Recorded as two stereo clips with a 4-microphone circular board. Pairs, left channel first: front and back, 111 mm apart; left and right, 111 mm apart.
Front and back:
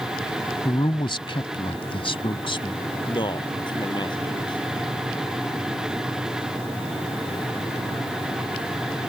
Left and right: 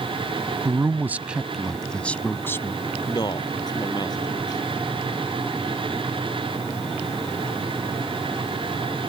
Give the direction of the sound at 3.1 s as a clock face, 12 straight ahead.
11 o'clock.